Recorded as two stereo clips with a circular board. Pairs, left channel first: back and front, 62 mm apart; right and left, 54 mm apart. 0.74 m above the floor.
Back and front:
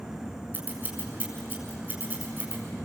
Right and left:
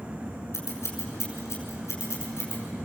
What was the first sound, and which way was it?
Scissors, 55° right.